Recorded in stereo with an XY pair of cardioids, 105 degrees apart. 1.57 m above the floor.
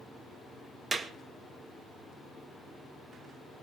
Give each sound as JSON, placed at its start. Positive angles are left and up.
{"t": 0.9, "sound": "a clap", "azimuth_deg": -40, "distance_m": 1.8}